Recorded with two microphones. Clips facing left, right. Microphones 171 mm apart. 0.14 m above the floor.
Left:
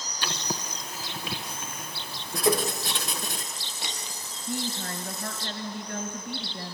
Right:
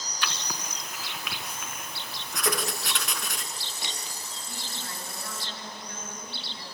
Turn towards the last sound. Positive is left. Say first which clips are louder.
# left 12 dB
turn(degrees=55)  # may be behind; listen again after turning